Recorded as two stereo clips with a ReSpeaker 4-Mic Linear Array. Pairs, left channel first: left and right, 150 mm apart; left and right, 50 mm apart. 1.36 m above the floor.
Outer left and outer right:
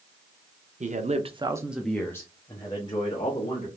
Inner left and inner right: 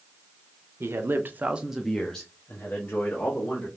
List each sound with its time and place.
0.8 s a man speaking: 50° right (ahead or behind), 0.8 m; by 3.7 s 35° left (ahead or behind), 1.9 m